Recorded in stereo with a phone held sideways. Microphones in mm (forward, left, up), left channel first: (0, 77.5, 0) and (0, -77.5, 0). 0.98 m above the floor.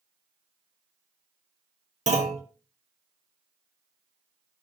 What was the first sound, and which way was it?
A clunk, 50° right (ahead or behind).